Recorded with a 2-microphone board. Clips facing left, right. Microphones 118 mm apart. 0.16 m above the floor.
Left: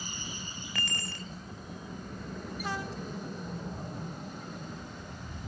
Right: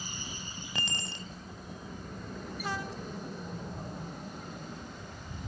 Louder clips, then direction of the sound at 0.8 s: Even; 20° right (ahead or behind).